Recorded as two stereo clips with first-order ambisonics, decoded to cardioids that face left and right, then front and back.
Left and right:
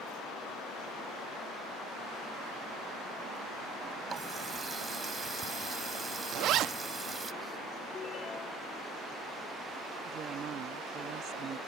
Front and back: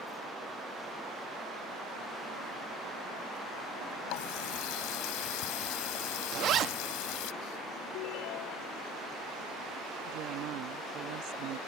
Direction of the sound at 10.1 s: 145° right.